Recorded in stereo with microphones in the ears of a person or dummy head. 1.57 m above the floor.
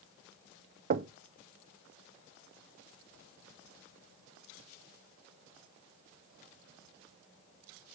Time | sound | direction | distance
0.9 | knocking | 45° right (ahead or behind) | 0.6 m